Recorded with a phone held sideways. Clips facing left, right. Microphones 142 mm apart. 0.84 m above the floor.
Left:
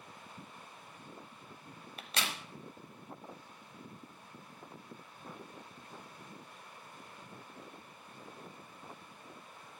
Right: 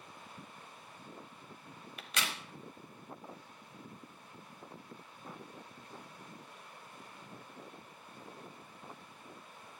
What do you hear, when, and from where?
2.0 s a crack: 35° left (ahead or behind), 1.1 m